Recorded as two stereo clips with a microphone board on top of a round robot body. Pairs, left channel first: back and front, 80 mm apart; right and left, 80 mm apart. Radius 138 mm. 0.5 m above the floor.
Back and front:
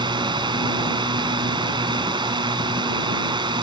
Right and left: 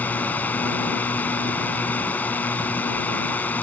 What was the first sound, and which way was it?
A drone, 20° right.